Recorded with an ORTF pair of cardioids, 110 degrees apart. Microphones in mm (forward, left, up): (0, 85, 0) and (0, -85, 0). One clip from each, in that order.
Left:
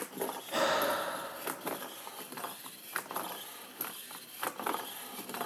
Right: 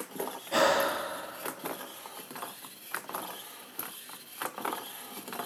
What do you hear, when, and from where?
0.5 s breathing: 30° right, 3.5 m